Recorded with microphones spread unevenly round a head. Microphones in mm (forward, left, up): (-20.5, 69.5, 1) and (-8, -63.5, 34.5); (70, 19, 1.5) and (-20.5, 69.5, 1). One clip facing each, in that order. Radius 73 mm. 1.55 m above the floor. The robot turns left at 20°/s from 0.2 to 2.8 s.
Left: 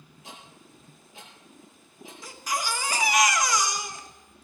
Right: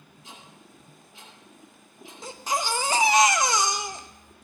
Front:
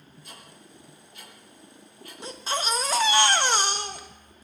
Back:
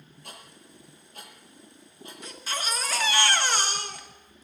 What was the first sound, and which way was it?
Ticking, 120° left.